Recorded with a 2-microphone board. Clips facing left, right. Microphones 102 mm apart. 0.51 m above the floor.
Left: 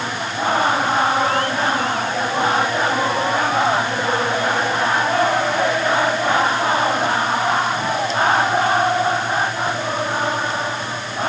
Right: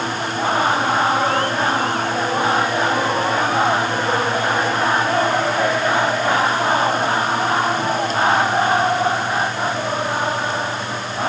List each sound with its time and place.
Only background noise.